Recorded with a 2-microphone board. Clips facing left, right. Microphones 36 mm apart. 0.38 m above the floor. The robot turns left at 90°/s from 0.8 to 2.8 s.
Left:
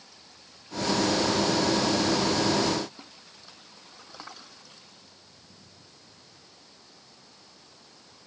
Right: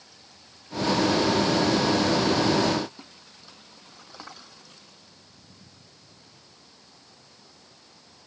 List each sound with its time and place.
Only background noise.